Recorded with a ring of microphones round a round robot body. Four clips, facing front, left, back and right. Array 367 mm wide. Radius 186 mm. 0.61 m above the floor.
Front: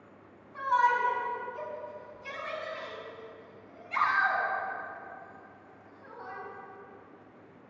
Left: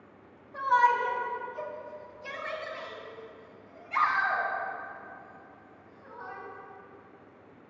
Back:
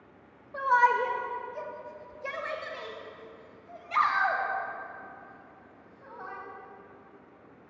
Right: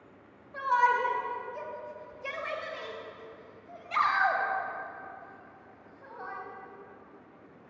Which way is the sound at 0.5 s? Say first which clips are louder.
Left 2 dB, back 2 dB; 175° right.